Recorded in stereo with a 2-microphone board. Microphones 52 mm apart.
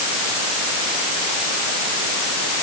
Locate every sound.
Only background noise.